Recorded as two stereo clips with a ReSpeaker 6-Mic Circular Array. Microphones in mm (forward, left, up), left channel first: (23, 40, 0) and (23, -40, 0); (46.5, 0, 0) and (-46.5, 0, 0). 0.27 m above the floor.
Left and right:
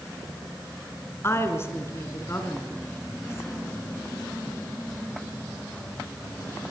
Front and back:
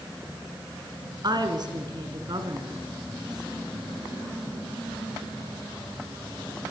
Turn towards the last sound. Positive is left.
turn(degrees=145)